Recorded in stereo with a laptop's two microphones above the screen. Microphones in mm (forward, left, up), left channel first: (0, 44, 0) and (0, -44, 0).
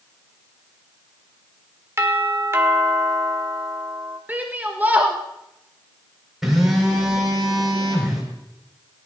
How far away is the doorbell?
About 1.7 m.